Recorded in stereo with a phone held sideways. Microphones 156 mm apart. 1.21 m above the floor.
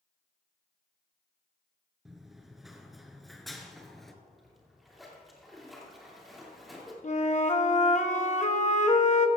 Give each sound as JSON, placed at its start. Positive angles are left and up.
{"t": 2.0, "sound": "running footsteps", "side_deg": 0, "distance_m": 1.2}
{"t": 4.2, "sound": "a splash", "side_deg": 0, "distance_m": 2.5}
{"t": 7.0, "sound": "a flute", "side_deg": 50, "distance_m": 0.9}